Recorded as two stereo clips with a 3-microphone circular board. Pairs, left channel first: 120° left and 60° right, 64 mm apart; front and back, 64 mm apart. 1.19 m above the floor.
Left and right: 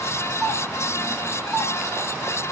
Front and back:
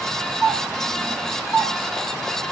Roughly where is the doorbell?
Behind right.